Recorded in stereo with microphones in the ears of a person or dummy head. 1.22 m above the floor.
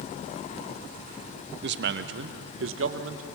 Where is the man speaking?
45° right (ahead or behind), 0.7 m; by 3.2 s 65° right (ahead or behind), 1.5 m.